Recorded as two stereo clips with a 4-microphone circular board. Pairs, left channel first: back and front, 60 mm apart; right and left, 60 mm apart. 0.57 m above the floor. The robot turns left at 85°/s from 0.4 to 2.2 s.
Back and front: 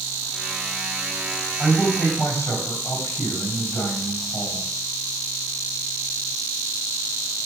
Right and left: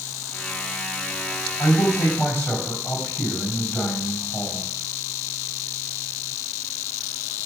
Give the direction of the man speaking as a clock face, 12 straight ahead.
3 o'clock.